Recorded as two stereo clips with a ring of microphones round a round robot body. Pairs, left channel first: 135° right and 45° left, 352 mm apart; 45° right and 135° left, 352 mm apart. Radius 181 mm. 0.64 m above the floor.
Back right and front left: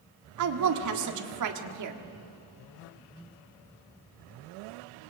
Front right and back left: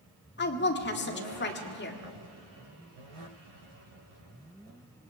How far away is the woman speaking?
About 1.7 m.